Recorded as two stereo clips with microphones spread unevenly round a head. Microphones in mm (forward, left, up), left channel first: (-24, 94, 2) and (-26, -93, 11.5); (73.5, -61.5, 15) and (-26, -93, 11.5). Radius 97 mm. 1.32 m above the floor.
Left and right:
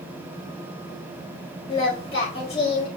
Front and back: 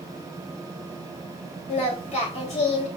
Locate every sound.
1.7 s singing: 25° left, 4.5 m